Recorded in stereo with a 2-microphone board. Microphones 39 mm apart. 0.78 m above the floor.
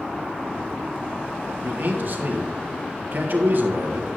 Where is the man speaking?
50° right (ahead or behind), 1.5 m.